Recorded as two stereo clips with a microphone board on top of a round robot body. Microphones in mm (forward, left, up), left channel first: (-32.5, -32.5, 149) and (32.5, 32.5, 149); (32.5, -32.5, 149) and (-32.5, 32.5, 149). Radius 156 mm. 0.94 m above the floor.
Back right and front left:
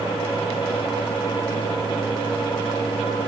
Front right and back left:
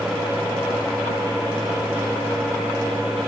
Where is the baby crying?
No baby crying in this recording.